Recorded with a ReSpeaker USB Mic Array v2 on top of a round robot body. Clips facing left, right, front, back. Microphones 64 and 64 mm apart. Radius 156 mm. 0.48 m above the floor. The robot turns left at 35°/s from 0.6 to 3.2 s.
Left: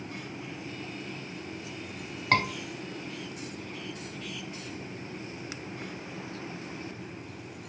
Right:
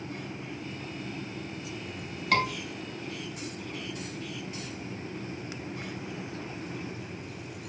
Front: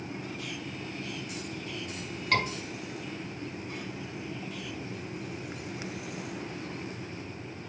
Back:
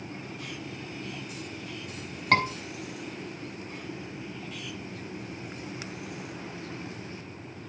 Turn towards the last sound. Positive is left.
turn(degrees=110)